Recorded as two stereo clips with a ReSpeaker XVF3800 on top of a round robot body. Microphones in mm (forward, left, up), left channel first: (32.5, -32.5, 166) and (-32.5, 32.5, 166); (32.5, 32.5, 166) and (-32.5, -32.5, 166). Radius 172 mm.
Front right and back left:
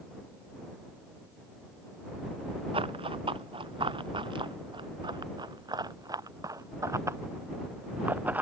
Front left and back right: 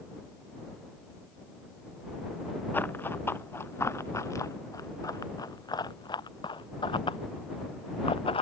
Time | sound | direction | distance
2.7 | running footsteps | 115° left | ?